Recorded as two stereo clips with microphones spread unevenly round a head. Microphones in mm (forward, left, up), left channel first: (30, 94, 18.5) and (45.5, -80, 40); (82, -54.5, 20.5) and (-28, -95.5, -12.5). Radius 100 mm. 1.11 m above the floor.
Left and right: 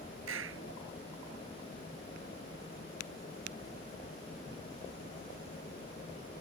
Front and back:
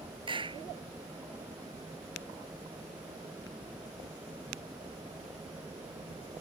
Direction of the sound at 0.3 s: 115° right.